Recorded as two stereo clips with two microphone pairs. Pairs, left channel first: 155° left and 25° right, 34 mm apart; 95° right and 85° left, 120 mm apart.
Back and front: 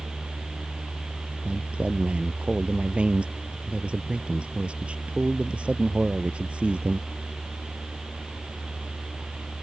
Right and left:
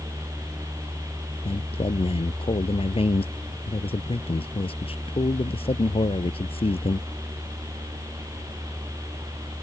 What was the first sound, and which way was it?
A man speaking, 70° right.